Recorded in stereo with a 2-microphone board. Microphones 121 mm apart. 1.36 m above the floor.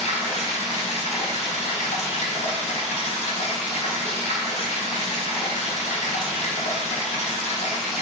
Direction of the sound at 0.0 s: 75° left (ahead or behind).